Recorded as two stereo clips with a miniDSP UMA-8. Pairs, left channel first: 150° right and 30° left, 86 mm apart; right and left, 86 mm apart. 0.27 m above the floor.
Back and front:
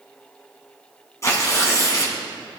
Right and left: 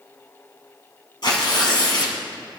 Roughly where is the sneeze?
No sneeze in this recording.